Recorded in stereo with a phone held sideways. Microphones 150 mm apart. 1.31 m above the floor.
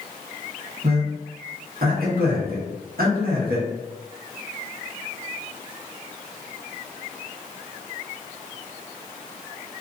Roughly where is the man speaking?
Right.